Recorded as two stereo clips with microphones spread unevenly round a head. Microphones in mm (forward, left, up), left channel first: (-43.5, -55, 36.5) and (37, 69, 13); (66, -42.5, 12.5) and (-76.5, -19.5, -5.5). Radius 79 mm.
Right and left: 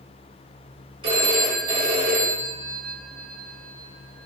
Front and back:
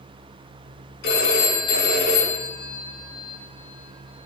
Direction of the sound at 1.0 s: 5° right.